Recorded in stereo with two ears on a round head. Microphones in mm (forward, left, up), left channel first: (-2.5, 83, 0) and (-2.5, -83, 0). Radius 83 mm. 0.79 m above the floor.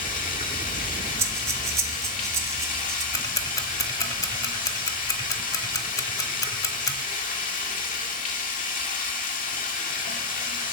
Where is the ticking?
20° left (ahead or behind), 1.0 m.